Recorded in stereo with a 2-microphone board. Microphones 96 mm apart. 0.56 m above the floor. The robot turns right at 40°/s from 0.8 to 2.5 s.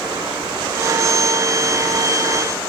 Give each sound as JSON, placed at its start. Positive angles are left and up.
{"t": 0.0, "sound": "running water", "azimuth_deg": -50, "distance_m": 5.5}